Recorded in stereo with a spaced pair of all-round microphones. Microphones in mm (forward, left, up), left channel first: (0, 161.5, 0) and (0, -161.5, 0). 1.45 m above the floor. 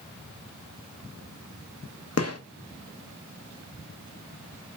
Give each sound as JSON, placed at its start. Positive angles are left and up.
{"t": 2.2, "sound": "a gunshot", "side_deg": 50, "distance_m": 1.0}